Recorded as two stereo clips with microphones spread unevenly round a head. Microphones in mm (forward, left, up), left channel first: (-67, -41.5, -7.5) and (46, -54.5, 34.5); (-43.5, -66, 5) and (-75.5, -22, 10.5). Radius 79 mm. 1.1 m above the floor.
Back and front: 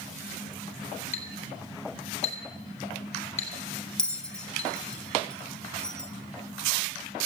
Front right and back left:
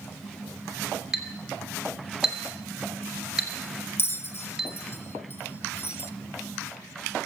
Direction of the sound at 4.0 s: 100° right.